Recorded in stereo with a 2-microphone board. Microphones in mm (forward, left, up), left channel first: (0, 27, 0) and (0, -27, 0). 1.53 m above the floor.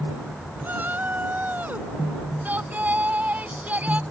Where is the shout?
35° right (ahead or behind); by 4.0 s 30° right (ahead or behind).